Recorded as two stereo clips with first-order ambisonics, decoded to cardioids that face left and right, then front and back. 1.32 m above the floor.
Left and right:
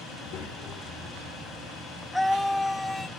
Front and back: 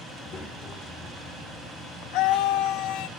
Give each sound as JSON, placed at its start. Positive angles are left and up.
{"t": 0.1, "sound": "a child speaking", "azimuth_deg": 60, "distance_m": 2.0}
{"t": 2.1, "sound": "a scream", "azimuth_deg": 5, "distance_m": 0.7}